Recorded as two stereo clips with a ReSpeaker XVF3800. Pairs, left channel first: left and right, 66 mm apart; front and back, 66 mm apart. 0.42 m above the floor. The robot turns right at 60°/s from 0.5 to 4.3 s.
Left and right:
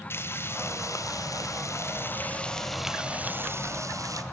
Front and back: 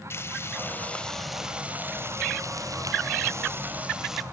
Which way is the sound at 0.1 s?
45° left.